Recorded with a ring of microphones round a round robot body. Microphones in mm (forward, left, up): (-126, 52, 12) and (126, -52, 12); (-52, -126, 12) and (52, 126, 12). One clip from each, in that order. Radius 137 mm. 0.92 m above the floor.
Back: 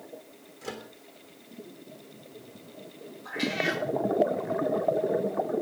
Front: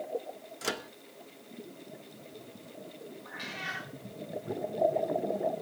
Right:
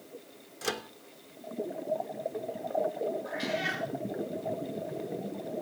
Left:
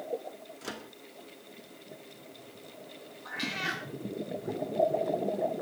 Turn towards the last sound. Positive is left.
turn(degrees=95)